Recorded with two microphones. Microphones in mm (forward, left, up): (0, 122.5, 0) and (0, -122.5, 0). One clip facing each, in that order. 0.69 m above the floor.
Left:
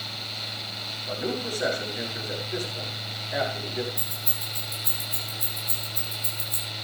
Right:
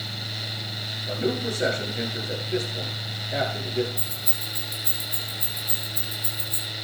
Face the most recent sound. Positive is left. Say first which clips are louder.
# right 2 dB
turn(degrees=35)  # may be behind; listen again after turning